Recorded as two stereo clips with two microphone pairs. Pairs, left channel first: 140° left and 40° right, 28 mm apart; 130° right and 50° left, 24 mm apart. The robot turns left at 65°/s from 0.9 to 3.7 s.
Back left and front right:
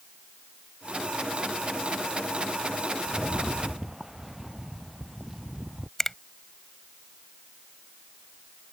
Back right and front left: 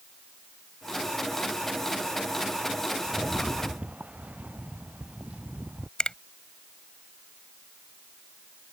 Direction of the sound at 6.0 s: 150° right.